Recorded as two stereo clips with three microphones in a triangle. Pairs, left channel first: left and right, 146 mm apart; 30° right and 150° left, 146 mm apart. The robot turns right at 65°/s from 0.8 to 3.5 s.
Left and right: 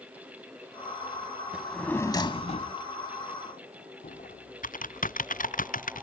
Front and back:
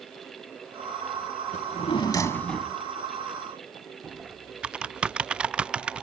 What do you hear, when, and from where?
1.5 s a drawer: 10° right; by 2.8 s 70° left
4.0 s typing on a keyboard: 65° left